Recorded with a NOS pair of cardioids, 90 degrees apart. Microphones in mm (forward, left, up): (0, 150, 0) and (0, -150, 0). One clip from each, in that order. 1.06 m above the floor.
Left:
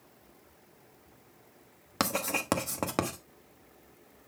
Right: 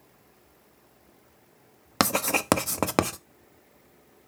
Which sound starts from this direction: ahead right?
Writing, at 2.0 s.